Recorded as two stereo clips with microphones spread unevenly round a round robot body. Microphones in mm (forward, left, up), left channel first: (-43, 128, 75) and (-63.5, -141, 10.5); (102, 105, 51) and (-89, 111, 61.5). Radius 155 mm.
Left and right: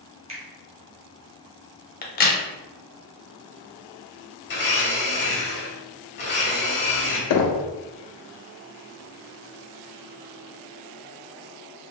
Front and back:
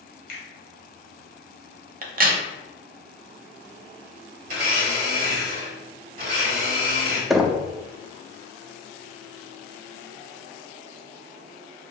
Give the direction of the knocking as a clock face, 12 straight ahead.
9 o'clock.